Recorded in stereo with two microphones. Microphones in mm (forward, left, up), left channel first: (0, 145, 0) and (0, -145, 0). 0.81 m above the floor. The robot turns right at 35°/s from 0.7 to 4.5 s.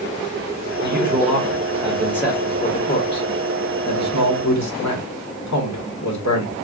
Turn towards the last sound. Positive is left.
turn(degrees=70)  # may be behind; listen again after turning